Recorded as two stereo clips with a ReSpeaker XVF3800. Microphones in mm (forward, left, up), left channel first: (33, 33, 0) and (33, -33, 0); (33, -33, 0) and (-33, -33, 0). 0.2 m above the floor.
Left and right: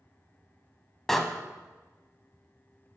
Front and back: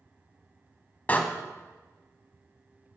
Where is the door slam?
10° left, 1.0 m.